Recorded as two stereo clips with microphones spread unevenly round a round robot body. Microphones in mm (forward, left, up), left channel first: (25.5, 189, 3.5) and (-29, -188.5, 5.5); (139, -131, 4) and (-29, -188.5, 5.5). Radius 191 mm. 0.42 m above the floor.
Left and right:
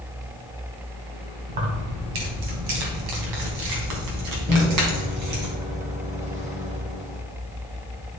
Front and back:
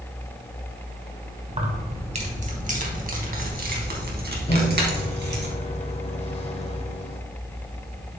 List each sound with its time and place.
1.5 s keys jangling: 105° right, 2.5 m; by 5.5 s 145° right, 3.5 m
4.5 s a microwave: 30° right, 1.5 m